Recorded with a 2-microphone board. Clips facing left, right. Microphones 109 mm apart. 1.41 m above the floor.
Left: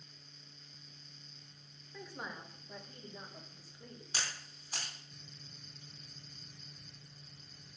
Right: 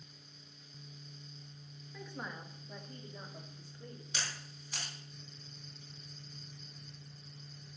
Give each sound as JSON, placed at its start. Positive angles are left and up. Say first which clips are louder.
{"t": 1.9, "sound": "a woman speaking", "louder": "right 1 dB", "side_deg": 5, "distance_m": 1.6}
{"t": 4.1, "sound": "a camera shutter", "louder": "left 1 dB", "side_deg": 35, "distance_m": 4.0}